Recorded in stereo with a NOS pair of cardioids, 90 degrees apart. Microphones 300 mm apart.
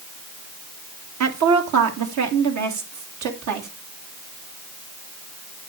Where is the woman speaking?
65° right, 1.9 m; by 3.7 s 75° right, 3 m.